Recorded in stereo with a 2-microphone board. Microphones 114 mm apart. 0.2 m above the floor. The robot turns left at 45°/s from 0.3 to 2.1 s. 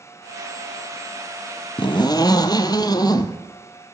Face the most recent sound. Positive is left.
turn(degrees=40)  # may be behind; listen again after turning